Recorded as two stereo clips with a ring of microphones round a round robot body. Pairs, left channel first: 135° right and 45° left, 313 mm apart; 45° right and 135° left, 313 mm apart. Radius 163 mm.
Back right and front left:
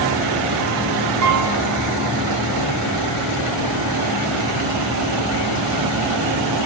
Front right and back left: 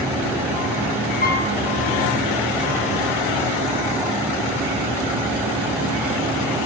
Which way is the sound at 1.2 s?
15° left.